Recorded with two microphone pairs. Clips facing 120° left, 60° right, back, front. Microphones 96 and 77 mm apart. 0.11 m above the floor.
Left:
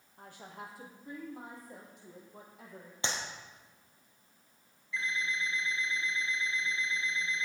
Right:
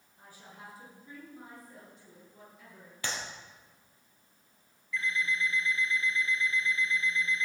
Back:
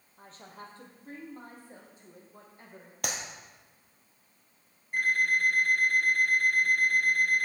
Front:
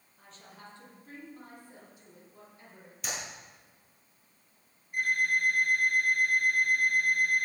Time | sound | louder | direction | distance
0.2 | a woman speaking | left 4 dB, back 4 dB | 135° left | 3 m
3.0 | a clap | left 1 dB, back 3 dB | straight behind | 2 m
4.9 | an alarm clock | right 3 dB, back 2 dB | 175° right | 4.5 m